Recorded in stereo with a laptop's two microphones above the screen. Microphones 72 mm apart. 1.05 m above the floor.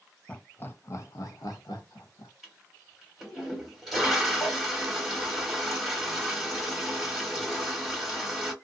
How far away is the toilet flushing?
About 1.6 m.